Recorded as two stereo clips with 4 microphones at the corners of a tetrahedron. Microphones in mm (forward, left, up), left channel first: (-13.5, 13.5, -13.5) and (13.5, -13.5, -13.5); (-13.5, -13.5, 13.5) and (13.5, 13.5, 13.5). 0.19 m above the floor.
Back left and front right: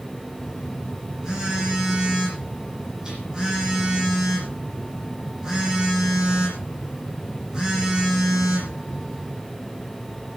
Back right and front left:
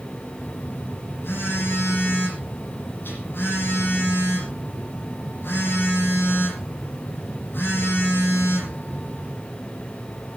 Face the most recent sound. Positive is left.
turn(degrees=-115)